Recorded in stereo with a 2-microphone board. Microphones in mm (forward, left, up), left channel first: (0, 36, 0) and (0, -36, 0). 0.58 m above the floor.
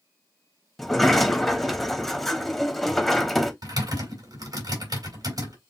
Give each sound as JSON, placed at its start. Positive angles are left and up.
{"t": 0.8, "sound": "a sliding door", "side_deg": 5, "distance_m": 1.0}
{"t": 3.6, "sound": "typing on a keyboard", "side_deg": -60, "distance_m": 3.5}